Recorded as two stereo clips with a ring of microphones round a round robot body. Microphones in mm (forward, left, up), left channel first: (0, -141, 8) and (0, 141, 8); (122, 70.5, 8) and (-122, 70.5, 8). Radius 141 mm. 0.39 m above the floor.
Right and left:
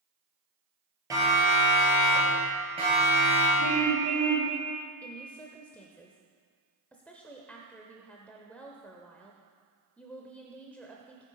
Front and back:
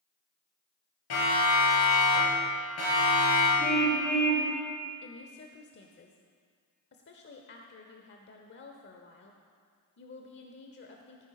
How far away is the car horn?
About 6.5 m.